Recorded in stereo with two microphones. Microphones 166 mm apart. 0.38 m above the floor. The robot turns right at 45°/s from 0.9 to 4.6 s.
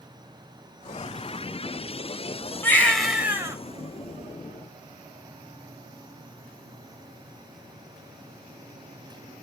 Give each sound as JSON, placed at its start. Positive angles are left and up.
{"t": 2.6, "sound": "a baby crying", "azimuth_deg": 160, "distance_m": 1.1}